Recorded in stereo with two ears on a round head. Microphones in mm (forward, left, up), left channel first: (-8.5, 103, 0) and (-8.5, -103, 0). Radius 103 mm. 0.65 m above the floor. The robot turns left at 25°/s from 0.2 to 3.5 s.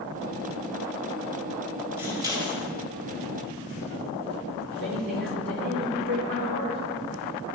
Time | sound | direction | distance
2.0 | scissors | 10° right (ahead or behind) | 2.5 m
4.7 | a man speaking | 50° right (ahead or behind) | 2.5 m